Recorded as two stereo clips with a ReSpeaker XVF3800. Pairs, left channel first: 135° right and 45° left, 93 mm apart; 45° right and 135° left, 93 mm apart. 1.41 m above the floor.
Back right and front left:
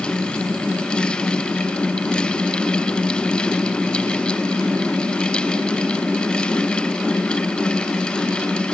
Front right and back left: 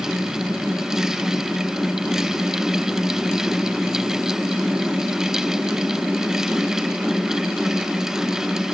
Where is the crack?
No crack in this recording.